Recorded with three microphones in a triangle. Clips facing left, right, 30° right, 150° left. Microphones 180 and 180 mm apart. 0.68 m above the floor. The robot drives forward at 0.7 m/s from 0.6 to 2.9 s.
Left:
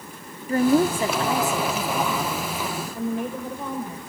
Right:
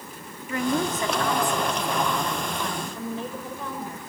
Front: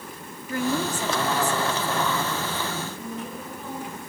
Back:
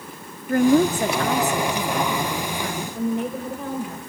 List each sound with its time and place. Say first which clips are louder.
0.5 s a woman speaking: left 7 dB, back 10 dB; 135° left, 0.9 m; by 4.0 s 165° left, 2.5 m